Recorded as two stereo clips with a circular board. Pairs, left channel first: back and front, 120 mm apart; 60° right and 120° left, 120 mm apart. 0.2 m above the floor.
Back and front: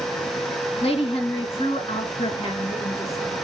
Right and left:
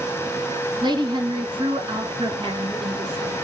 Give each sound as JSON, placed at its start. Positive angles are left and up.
{"t": 0.8, "sound": "a woman speaking", "azimuth_deg": 160, "distance_m": 2.0}